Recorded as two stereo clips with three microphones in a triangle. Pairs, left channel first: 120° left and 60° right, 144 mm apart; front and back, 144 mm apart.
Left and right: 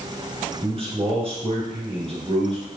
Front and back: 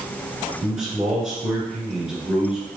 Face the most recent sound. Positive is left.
turn(degrees=-95)